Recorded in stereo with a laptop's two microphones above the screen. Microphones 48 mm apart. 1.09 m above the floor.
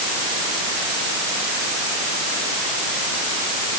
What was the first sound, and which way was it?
Only background noise.